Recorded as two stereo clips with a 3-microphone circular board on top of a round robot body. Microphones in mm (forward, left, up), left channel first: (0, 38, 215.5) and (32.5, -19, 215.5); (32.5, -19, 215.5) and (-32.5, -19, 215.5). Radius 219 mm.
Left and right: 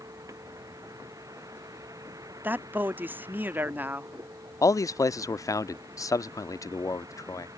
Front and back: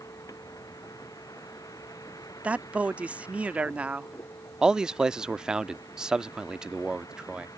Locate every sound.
0.0 s a vehicle: 30° right
2.4 s a man speaking: 115° right
4.6 s a man speaking: 105° left